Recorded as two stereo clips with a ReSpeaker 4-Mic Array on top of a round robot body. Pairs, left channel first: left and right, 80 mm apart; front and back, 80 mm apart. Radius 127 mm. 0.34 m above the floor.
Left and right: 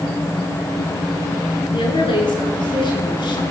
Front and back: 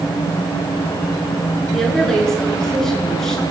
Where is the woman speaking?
85° left, 8 m.